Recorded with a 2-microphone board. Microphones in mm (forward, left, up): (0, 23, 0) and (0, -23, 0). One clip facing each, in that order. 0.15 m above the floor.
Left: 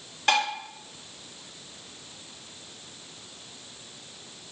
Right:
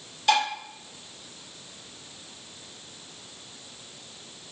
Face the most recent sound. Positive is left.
turn(degrees=50)  # may be behind; listen again after turning